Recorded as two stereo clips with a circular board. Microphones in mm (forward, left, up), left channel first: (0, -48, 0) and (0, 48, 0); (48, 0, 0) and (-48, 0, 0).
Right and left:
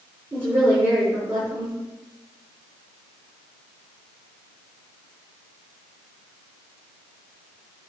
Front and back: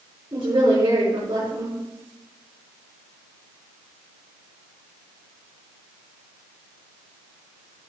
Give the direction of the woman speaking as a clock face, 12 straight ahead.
7 o'clock.